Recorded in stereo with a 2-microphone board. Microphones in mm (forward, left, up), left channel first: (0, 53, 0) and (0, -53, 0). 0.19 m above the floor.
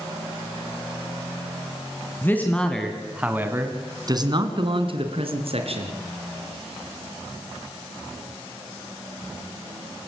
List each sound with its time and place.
2.2 s a man speaking: 20° left (ahead or behind), 2.5 m; by 6.0 s 65° right (ahead or behind), 3.5 m